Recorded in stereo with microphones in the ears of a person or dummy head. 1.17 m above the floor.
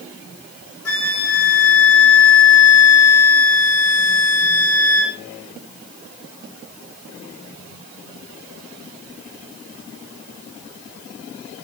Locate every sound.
0.8 s a flute: 75° left (ahead or behind), 4.5 m